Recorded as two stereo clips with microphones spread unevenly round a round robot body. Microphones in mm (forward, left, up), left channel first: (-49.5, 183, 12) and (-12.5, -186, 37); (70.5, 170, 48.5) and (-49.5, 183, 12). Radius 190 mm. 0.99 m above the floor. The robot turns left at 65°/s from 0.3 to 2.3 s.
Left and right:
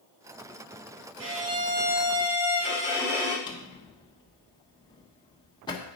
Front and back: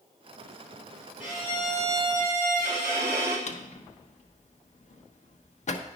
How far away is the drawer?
About 1.1 m.